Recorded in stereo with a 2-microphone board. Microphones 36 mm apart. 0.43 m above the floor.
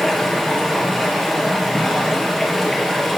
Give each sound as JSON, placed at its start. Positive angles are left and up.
{"t": 0.0, "sound": "running water", "side_deg": 5, "distance_m": 3.0}